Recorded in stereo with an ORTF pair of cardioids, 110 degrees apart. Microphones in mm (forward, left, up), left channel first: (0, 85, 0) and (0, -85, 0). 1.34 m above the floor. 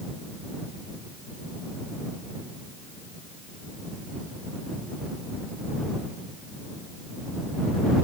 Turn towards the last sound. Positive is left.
No sound to turn to.